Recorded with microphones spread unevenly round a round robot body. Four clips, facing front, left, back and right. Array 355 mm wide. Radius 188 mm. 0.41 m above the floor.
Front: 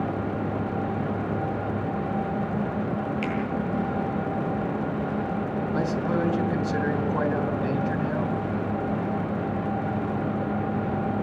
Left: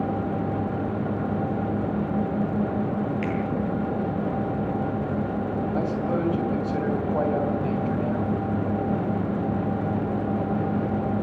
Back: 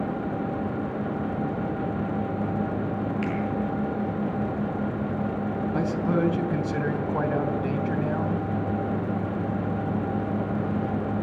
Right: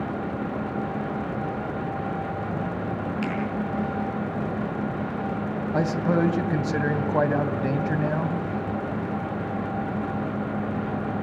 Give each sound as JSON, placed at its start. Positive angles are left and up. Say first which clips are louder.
{"t": 3.2, "sound": "a finger snap", "louder": "left 1 dB, even", "azimuth_deg": -40, "distance_m": 8.5}
{"t": 5.7, "sound": "a man speaking", "louder": "right 5 dB, even", "azimuth_deg": -105, "distance_m": 3.0}